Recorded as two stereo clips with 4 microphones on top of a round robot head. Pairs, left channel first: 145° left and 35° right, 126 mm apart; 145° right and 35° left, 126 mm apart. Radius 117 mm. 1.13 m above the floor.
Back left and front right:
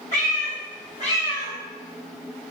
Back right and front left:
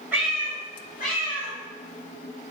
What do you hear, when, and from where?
0.1 s a cat meowing: 110° left, 0.8 m; by 1.5 s 160° right, 1.3 m